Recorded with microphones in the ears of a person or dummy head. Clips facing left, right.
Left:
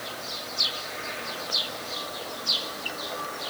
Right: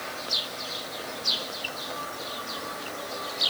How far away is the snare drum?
No snare drum in this recording.